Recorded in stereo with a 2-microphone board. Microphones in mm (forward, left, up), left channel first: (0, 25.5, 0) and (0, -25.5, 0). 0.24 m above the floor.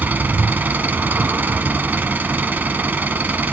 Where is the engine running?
35° right (ahead or behind), 0.9 m.